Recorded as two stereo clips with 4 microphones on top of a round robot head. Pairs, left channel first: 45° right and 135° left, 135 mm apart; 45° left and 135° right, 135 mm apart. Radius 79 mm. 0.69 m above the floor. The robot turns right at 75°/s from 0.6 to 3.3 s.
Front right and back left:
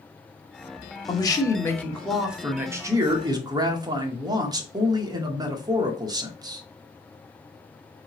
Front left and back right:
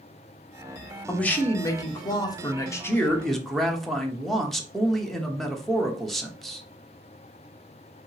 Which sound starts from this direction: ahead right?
A man speaking, at 1.1 s.